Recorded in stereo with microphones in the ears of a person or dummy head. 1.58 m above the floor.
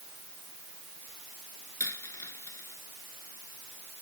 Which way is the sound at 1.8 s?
10° left (ahead or behind).